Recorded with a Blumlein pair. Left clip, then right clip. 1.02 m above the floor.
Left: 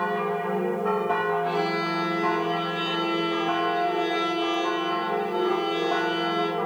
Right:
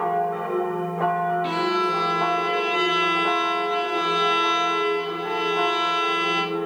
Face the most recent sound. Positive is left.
turn(degrees=-35)